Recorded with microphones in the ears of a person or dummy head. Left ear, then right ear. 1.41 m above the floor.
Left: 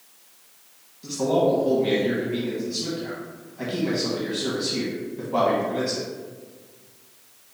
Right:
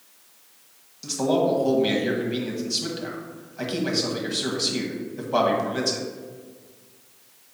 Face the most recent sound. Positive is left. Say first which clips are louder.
# left 1 dB
turn(degrees=-40)  # may be behind; listen again after turning